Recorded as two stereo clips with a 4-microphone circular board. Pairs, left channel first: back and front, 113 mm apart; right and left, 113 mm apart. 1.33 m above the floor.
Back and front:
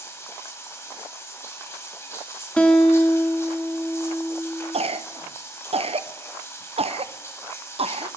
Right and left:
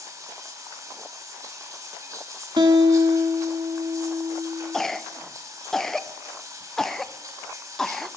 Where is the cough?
5° right, 0.6 m.